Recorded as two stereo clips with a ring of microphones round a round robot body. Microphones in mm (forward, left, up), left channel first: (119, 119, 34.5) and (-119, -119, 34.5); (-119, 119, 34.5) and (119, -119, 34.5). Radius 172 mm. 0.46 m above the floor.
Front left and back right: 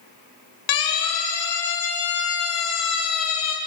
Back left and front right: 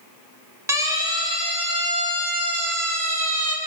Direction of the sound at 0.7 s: 35° left.